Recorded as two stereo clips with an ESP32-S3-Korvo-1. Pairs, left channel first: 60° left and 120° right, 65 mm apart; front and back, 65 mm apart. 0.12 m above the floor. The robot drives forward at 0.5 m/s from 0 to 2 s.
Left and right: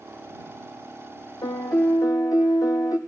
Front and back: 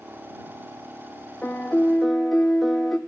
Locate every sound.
1.4 s a piano: 70° left, 0.9 m; by 3.0 s 90° left, 0.8 m